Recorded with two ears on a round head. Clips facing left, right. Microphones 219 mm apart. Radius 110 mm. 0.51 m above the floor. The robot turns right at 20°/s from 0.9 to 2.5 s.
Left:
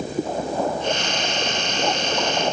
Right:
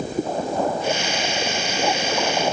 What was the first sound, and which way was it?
Only background noise.